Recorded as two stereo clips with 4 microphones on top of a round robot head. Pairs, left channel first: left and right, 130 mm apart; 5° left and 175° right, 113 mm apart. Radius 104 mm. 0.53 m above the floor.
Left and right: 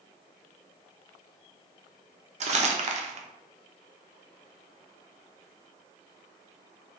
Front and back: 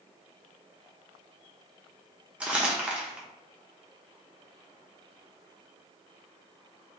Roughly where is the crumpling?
Right.